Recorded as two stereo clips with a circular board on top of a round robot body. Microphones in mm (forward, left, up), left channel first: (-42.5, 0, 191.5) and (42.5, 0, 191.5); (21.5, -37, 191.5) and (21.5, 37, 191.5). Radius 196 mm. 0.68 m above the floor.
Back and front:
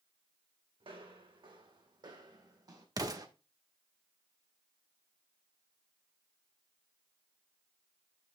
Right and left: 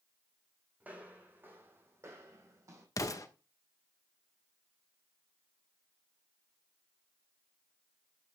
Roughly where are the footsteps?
Ahead.